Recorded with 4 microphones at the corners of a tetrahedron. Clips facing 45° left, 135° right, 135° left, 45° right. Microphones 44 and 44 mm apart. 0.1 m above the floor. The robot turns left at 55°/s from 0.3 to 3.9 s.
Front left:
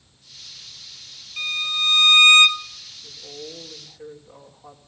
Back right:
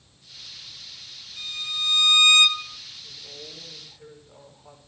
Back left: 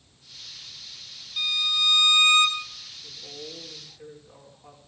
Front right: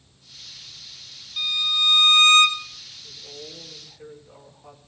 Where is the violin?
45° left, 2.5 m; by 2.6 s 25° right, 2.5 m.